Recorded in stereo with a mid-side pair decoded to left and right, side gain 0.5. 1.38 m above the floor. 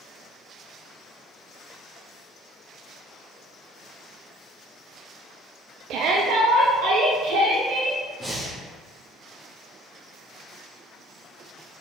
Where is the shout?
70° right, 0.7 m; by 8.0 s 80° right, 2.5 m.